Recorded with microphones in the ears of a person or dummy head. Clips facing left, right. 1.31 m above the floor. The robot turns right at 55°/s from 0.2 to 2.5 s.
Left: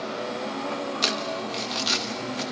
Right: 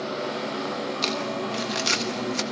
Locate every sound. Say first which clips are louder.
1.0 s crumpling: right 2 dB; 15° left (ahead or behind), 1.2 m; by 2.4 s 60° right (ahead or behind), 1.2 m